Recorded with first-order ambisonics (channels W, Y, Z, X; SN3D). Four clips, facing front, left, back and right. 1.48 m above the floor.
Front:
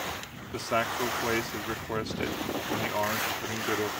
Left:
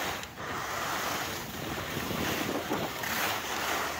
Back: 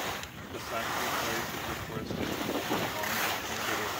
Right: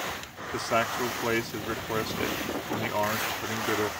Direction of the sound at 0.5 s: 60° right.